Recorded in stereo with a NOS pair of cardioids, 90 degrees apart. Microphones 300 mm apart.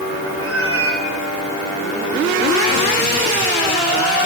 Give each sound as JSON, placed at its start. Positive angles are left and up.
{"t": 0.4, "sound": "a cat meowing", "azimuth_deg": -50, "distance_m": 1.6}